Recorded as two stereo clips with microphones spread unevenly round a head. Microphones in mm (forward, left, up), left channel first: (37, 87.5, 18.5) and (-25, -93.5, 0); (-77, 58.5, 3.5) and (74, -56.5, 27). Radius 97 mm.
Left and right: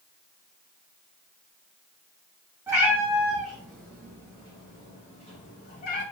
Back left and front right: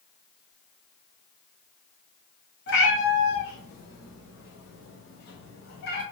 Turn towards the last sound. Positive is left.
turn(degrees=100)